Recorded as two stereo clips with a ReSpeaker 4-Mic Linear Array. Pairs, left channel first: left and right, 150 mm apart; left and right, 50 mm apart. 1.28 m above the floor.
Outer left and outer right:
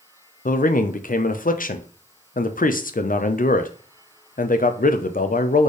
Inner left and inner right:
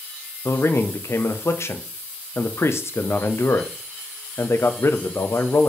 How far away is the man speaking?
About 0.5 m.